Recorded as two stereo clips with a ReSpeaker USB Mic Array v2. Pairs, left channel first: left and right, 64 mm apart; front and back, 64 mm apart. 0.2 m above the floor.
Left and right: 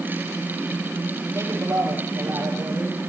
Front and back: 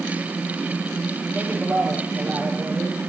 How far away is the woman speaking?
About 6 m.